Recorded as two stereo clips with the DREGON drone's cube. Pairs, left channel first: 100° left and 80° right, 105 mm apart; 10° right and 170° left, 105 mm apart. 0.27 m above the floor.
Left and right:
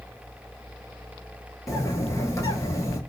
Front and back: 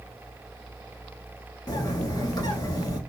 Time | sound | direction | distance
1.7 | a bird | 40° left | 0.8 m